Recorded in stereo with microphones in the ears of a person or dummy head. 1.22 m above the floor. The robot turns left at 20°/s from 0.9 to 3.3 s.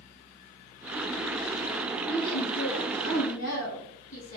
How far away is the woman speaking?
About 1.4 m.